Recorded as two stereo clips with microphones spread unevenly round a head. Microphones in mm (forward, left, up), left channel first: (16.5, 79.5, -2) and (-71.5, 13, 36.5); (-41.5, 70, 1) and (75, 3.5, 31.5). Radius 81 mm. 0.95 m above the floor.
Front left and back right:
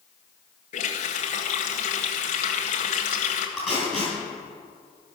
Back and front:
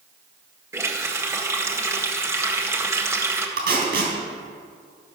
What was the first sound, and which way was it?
A running tap, 40° left.